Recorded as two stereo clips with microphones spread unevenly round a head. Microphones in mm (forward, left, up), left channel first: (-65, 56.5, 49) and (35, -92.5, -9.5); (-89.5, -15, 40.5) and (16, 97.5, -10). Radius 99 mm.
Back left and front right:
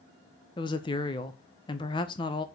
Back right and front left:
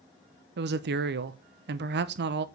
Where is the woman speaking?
60° left, 0.9 m.